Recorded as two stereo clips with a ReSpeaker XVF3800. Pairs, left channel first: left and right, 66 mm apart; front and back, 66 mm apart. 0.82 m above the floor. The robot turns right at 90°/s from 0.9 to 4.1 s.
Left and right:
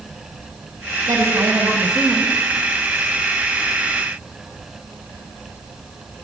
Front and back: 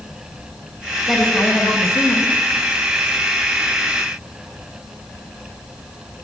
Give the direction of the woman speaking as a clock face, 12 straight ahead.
3 o'clock.